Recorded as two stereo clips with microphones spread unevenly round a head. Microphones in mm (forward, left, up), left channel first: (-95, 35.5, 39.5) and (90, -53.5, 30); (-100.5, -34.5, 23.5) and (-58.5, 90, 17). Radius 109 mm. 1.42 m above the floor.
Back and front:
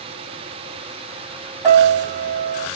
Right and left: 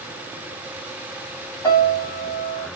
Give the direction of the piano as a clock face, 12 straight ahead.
3 o'clock.